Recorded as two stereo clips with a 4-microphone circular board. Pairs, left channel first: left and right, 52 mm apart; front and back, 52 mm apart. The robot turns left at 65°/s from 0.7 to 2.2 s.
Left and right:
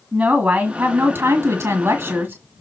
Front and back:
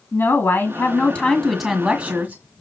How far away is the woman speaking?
About 2 m.